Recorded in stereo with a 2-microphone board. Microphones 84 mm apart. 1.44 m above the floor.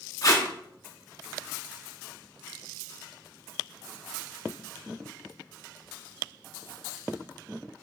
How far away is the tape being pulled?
About 0.7 m.